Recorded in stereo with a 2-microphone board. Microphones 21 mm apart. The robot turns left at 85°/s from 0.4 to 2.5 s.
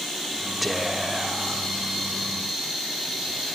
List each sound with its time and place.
0.6 s whispering: centre (ahead or behind), 1.3 m; by 1.7 s 25° right (ahead or behind), 1.3 m